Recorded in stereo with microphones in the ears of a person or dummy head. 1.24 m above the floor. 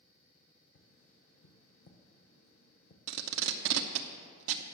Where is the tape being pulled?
80° right, 0.7 m.